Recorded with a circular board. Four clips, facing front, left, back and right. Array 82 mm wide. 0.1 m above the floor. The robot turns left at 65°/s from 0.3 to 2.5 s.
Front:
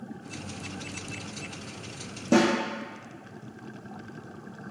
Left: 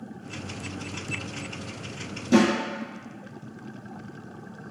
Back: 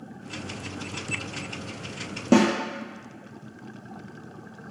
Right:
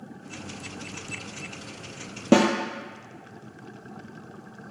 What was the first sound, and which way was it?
A snare drum, 115° right.